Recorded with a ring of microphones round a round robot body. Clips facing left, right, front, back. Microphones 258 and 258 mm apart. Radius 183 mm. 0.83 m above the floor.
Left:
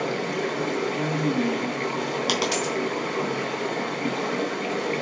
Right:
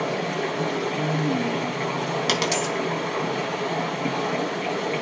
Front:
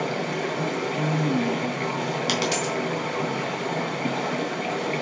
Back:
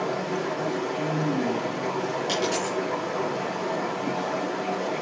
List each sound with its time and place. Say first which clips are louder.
0.0 s running water: even, even; 5° right, 5 m
2.3 s a dropped coin: even, even; 30° right, 3 m